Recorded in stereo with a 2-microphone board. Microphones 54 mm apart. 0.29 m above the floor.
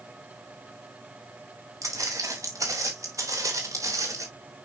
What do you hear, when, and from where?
1.8 s footsteps: 85° right, 5 m